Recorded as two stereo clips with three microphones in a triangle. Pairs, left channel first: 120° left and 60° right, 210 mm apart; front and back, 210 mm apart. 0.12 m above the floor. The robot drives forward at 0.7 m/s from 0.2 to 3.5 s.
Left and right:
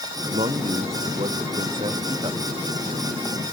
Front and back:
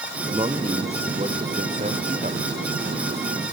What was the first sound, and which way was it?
A man speaking, 120° right.